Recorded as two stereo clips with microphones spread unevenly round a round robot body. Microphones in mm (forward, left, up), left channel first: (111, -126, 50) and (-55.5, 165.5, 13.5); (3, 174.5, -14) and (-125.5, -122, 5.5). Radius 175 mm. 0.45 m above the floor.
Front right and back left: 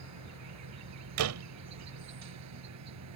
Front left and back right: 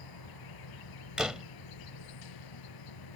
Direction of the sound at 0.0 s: 80° left.